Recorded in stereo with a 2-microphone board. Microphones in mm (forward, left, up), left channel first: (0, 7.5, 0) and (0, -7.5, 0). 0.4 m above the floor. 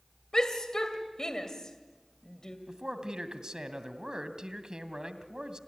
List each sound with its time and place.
0.3 s a shout: 40° left (ahead or behind), 2.5 m
2.7 s a man speaking: 60° right (ahead or behind), 2 m